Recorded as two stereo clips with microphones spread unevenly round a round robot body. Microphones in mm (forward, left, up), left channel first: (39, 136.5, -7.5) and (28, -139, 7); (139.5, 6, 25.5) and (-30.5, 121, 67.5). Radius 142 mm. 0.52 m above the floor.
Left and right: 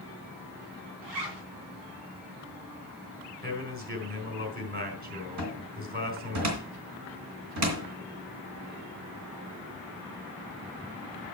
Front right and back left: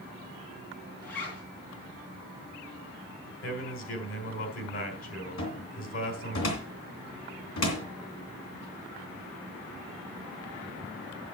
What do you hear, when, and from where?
1.0 s a zipper: 85° right, 3 m
3.4 s a man speaking: 35° right, 3 m
5.4 s a cupboard door: 60° right, 3 m